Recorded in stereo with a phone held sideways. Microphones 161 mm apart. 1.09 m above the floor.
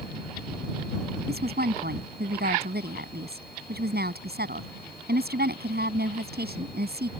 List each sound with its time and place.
1.3 s a woman speaking: 85° right